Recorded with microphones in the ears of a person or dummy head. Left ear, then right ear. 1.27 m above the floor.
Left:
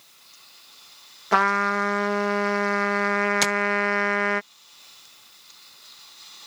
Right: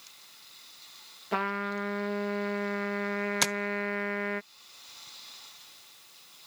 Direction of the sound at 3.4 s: 5° left (ahead or behind).